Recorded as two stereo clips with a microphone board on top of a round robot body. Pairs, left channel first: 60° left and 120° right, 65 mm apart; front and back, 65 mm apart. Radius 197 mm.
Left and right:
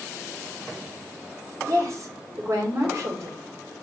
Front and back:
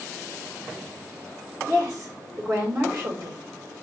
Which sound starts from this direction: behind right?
A woman speaking, at 1.6 s.